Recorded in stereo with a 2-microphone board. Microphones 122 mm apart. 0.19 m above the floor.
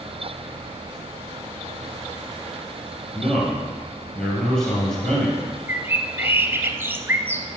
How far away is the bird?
About 0.6 m.